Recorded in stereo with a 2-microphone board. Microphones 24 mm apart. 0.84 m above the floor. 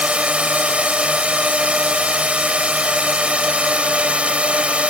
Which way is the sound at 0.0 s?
70° right (ahead or behind).